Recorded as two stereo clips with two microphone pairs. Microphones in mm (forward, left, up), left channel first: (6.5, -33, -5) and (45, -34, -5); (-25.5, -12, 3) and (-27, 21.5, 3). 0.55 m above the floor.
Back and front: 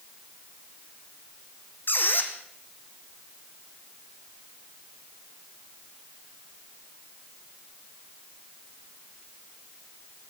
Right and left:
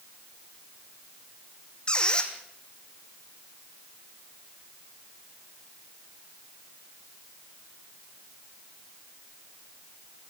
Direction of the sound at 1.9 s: 150° right.